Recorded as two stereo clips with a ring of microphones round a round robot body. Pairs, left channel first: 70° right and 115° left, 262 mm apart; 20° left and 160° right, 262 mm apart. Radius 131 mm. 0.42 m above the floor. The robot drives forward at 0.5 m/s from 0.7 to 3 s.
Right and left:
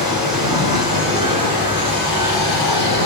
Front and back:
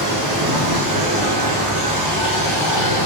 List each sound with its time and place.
0.0 s running water: 170° right, 1.7 m; by 3.1 s 175° right, 3 m